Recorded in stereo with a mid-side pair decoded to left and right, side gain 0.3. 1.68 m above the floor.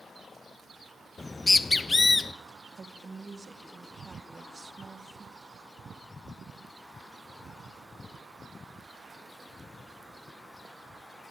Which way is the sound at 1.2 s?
40° left.